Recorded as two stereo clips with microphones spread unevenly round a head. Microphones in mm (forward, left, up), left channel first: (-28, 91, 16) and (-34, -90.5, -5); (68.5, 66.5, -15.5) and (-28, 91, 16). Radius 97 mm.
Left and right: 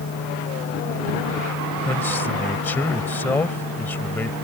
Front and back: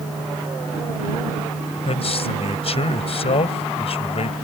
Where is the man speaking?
10° left.